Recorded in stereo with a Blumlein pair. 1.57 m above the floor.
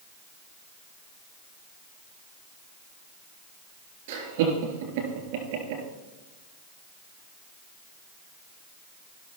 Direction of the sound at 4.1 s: 55° right.